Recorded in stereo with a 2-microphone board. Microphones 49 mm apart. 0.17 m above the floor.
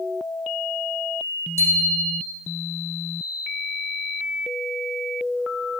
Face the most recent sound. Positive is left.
turn(degrees=-70)  # may be behind; listen again after turning